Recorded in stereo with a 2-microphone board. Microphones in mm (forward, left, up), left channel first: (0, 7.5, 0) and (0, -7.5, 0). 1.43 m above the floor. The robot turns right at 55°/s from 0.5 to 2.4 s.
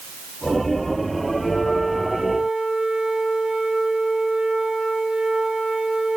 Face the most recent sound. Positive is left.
turn(degrees=-110)